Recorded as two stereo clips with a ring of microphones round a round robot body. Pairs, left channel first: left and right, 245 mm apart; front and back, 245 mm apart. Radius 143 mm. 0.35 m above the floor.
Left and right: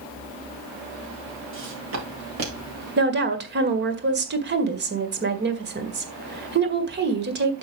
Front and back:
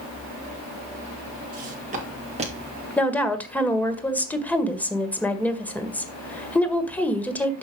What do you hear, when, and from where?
1.5 s footsteps: 125° right, 5 m; by 2.9 s 115° right, 4 m
3.0 s a woman speaking: 80° right, 1.9 m